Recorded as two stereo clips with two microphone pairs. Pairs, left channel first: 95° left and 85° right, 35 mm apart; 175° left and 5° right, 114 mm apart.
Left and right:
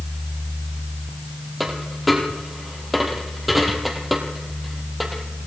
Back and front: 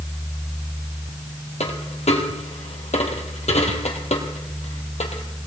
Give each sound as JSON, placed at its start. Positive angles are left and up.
{"t": 1.6, "sound": "a dropped coin", "azimuth_deg": -175, "distance_m": 2.0}